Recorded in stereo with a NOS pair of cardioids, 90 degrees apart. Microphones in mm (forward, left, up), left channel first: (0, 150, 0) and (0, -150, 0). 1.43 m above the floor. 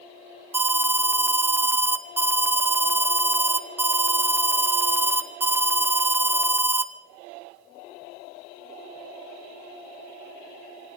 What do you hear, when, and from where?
0.5 s an alarm: 5° right, 0.5 m